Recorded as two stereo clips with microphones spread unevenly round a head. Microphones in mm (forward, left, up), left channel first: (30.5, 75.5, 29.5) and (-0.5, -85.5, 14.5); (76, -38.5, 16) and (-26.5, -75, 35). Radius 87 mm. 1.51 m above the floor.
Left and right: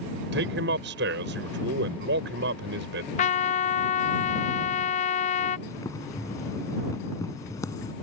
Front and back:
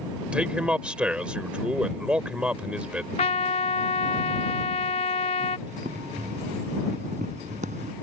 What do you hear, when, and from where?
0.3 s a man speaking: 80° right
3.2 s a trumpet: 65° left
5.7 s boiling: 150° left